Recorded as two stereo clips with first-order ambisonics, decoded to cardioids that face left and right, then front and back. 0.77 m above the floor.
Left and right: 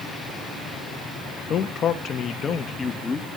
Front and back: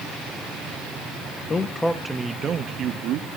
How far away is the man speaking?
About 1.0 m.